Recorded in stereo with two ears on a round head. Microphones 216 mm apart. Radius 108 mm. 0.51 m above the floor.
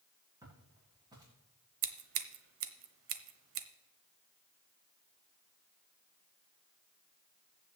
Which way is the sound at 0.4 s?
15° right (ahead or behind).